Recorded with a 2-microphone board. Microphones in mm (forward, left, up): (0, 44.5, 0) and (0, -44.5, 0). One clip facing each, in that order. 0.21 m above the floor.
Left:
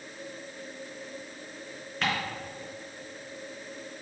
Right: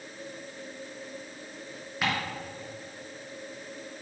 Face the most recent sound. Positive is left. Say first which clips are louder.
# even
turn(degrees=-5)  # may be behind; listen again after turning